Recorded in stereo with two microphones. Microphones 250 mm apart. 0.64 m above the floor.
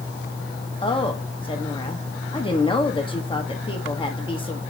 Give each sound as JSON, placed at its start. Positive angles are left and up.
{"t": 0.8, "sound": "a woman speaking", "side_deg": 20, "distance_m": 1.1}